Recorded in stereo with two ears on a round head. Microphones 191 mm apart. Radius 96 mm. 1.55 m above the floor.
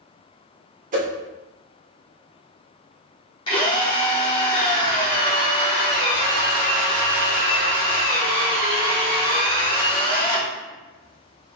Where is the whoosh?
40° right (ahead or behind), 1.1 m.